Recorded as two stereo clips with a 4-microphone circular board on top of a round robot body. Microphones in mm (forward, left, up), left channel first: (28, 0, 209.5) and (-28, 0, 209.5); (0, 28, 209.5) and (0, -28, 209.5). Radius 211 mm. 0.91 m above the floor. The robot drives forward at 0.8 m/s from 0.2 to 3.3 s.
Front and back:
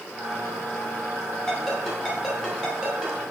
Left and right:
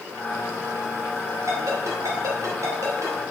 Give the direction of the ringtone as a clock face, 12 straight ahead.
3 o'clock.